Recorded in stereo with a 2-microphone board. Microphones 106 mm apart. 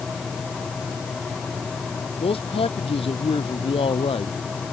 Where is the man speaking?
60° left (ahead or behind).